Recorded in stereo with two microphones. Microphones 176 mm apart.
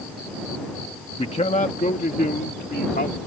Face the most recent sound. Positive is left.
turn(degrees=65)  # may be behind; listen again after turning